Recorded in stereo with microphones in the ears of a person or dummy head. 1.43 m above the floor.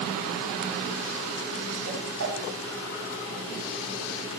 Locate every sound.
1.9 s a whoosh: 85° right, 8 m